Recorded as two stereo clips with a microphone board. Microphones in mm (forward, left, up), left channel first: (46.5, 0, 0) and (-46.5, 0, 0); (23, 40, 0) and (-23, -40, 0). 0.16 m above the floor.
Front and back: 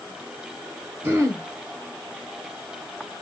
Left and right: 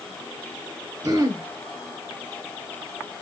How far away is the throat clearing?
About 0.9 m.